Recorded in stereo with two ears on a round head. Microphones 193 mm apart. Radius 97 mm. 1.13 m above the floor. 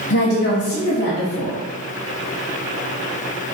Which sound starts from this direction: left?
A woman speaking, at 0.1 s.